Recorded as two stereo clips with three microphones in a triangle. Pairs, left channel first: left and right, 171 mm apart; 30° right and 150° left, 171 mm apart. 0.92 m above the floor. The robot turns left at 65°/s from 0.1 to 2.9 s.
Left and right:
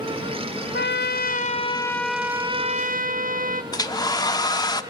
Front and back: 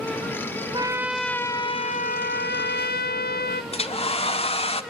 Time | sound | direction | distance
0.7 | a trumpet | 90° left | 0.7 m
3.7 | a hair dryer | 20° left | 0.9 m